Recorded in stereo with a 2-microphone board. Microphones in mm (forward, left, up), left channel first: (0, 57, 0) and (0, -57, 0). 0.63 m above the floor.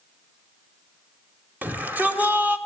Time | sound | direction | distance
1.6 | a shout | 15° right (ahead or behind) | 2.5 m